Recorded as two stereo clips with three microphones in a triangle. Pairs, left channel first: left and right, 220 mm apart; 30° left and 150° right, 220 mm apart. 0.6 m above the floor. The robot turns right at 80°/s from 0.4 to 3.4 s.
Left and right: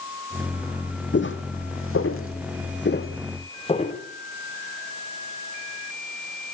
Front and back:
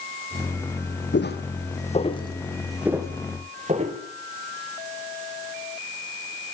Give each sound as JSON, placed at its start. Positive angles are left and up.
{"t": 1.1, "sound": "footsteps", "azimuth_deg": 60, "distance_m": 1.9}